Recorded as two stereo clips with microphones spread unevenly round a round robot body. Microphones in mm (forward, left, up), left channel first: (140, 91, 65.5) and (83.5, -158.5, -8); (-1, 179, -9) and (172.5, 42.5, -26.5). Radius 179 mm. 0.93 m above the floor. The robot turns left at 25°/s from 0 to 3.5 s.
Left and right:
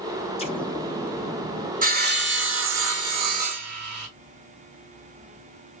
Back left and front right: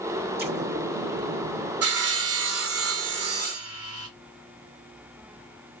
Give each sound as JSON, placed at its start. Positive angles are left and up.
{"t": 0.4, "sound": "an explosion", "azimuth_deg": 10, "distance_m": 1.5}
{"t": 1.8, "sound": "sawing", "azimuth_deg": -40, "distance_m": 1.9}